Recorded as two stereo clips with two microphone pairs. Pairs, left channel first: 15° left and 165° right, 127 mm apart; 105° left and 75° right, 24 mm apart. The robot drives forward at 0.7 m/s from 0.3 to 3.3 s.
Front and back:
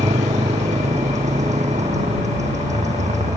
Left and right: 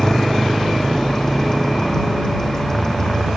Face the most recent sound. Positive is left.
turn(degrees=175)